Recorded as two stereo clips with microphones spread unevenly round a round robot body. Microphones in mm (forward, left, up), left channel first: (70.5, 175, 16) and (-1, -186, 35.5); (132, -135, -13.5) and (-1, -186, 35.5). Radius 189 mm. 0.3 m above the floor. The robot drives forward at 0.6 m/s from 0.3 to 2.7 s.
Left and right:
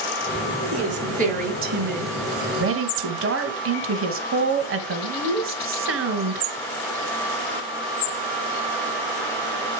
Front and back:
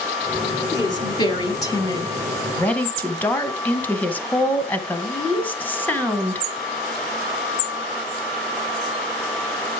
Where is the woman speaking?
30° right, 3 m; by 6.5 s 45° right, 2 m.